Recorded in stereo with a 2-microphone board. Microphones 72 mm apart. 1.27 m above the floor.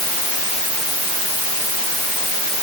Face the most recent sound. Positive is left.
No sound to turn to.